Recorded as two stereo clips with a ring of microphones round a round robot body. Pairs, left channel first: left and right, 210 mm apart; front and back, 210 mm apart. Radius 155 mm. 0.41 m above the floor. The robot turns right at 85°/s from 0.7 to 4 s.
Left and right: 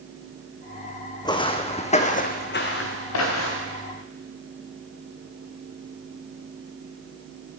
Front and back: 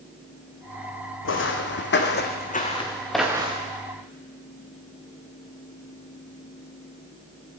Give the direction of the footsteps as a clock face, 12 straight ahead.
11 o'clock.